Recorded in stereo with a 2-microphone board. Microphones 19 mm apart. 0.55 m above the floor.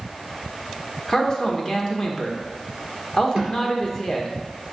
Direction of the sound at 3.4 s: 50° right (ahead or behind).